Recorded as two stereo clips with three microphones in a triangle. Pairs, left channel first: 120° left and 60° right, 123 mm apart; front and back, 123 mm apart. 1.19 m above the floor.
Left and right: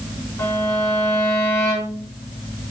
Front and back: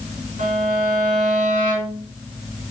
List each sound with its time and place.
0.4 s a violin: 175° right, 3.5 m